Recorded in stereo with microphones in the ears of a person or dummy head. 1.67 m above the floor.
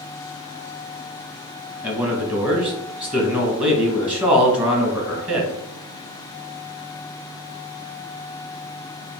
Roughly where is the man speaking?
Right.